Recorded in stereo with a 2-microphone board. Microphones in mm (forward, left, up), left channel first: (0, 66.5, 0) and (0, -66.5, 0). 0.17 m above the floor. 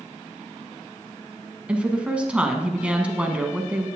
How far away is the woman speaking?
About 1.2 m.